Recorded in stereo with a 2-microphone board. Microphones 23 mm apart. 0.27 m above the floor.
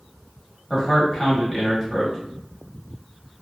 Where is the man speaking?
15° left (ahead or behind), 1.1 m.